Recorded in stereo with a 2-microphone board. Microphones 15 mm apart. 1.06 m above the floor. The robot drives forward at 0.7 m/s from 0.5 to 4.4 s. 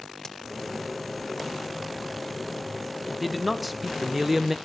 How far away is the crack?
About 0.8 m.